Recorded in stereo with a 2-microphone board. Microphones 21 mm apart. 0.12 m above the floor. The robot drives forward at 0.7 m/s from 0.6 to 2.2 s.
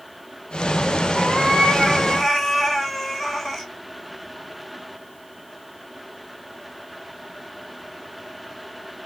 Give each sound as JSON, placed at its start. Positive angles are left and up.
{"t": 1.1, "sound": "a cat meowing", "side_deg": 0, "distance_m": 1.4}